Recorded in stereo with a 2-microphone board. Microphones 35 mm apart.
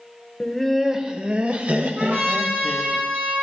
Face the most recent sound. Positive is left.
turn(degrees=-60)  # may be behind; listen again after turning